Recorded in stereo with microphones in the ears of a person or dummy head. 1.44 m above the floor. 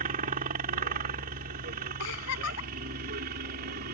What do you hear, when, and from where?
0.0 s a helicopter: 40° right (ahead or behind); by 4.0 s 45° right (ahead or behind)
2.0 s a giggle: 75° left (ahead or behind)